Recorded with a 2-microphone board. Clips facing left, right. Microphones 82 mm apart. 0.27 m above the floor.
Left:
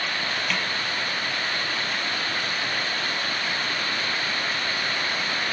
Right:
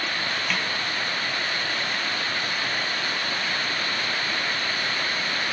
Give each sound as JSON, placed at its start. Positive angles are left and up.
{"t": 0.5, "sound": "a snare drum", "side_deg": 0, "distance_m": 4.5}